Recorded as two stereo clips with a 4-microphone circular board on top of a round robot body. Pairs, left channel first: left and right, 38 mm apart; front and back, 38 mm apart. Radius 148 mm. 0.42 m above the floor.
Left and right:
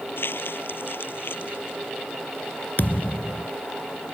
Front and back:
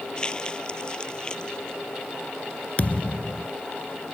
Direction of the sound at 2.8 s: 50° left.